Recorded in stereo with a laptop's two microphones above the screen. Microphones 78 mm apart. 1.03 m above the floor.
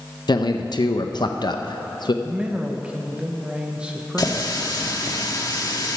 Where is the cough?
No cough in this recording.